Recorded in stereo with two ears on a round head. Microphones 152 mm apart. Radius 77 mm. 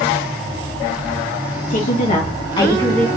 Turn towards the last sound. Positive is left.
turn(degrees=10)  # may be behind; listen again after turning